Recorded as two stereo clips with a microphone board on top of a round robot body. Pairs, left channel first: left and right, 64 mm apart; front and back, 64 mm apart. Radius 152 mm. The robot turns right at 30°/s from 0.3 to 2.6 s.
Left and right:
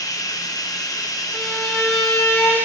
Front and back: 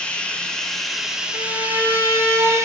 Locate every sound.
0.0 s running water: 75° left, 0.7 m; by 2.6 s 140° left, 0.7 m
1.3 s a violin: 10° left, 2.5 m; by 2.5 s 50° left, 2.5 m